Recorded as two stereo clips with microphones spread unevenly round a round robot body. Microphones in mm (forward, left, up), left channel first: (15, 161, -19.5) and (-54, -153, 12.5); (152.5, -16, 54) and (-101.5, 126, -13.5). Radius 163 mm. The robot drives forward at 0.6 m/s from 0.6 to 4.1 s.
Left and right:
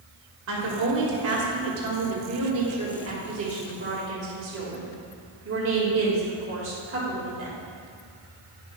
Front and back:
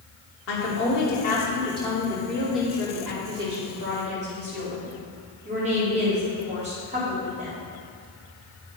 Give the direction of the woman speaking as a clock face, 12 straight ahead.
2 o'clock.